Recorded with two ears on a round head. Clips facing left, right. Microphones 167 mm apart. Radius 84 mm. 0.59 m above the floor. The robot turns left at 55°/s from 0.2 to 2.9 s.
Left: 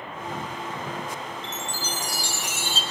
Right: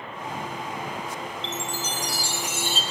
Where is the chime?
165° left, 3 m; by 2.8 s 90° left, 3 m.